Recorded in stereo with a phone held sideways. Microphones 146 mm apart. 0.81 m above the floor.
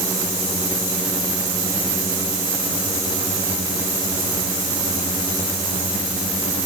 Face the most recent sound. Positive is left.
No sound to turn to.